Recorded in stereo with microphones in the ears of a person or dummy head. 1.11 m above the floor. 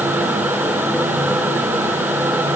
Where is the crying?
I don't hear crying.